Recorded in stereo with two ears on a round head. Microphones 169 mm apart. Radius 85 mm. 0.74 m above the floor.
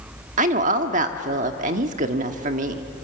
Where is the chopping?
I don't hear chopping.